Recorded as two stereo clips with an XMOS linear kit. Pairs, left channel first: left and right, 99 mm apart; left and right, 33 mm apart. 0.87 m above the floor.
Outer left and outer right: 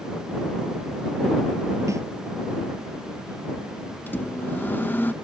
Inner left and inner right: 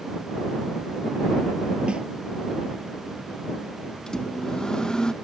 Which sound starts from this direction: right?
A snare drum, at 1.9 s.